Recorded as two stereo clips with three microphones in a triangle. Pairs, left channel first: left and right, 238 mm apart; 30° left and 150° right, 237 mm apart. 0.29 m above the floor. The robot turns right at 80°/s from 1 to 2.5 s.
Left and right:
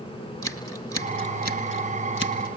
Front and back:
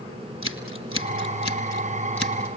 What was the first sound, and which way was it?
Scissors, 20° left.